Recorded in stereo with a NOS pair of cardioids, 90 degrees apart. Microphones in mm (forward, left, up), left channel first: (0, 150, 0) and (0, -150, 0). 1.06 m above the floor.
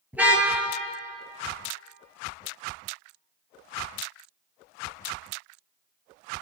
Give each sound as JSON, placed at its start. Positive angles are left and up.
{"t": 0.1, "sound": "a car horn", "azimuth_deg": -5, "distance_m": 7.5}